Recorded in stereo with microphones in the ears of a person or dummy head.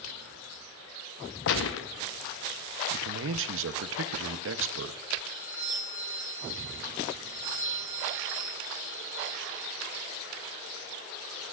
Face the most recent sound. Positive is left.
turn(degrees=-25)  # may be behind; listen again after turning